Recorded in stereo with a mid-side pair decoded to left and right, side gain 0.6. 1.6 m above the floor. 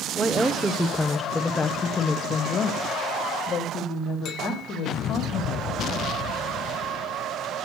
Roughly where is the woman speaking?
Ahead.